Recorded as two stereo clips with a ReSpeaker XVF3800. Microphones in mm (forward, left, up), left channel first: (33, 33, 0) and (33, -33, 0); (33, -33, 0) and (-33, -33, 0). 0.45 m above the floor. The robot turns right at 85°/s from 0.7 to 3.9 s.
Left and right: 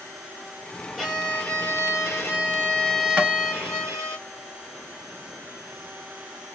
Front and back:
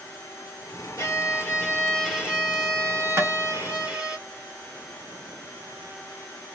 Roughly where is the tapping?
Behind right.